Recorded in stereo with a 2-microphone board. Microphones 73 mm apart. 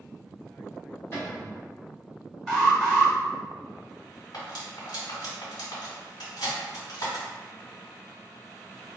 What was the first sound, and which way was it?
A cupboard door, 35° left (ahead or behind).